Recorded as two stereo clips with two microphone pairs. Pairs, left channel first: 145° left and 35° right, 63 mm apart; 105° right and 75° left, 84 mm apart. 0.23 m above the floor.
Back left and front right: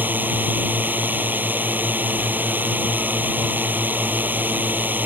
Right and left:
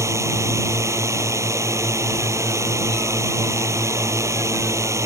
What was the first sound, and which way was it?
A drone, 25° left.